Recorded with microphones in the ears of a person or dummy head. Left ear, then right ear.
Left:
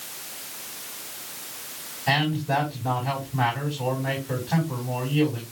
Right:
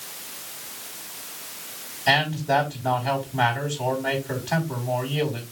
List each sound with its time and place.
2.1 s a man speaking: 80° right, 5.5 m